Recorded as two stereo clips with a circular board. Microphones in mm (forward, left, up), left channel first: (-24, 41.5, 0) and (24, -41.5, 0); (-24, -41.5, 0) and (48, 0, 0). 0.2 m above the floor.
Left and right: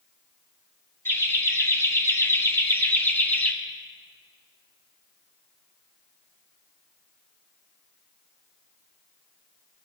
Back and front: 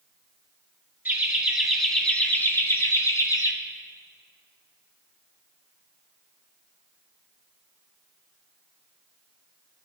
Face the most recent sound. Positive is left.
turn(degrees=-175)